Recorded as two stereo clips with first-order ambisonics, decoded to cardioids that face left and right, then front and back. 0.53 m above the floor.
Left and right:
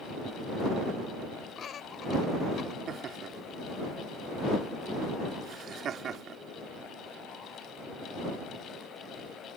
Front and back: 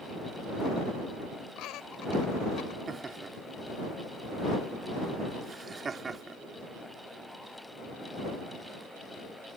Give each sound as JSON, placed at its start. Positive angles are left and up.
{"t": 1.6, "sound": "laughter", "azimuth_deg": 30}
{"t": 2.9, "sound": "laughter", "azimuth_deg": -120}